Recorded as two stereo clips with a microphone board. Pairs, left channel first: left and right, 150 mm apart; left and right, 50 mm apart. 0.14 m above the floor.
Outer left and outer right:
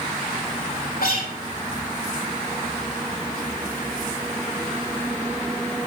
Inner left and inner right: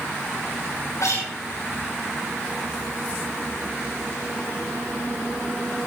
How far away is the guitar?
About 6.5 m.